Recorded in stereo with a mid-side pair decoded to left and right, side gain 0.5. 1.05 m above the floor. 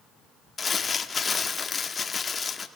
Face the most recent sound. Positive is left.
turn(degrees=30)